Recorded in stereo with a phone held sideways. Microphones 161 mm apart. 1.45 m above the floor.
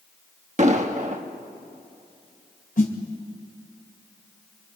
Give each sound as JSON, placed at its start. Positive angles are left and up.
{"t": 0.6, "sound": "an explosion", "side_deg": -45, "distance_m": 1.3}
{"t": 2.8, "sound": "a snare drum", "side_deg": 60, "distance_m": 2.5}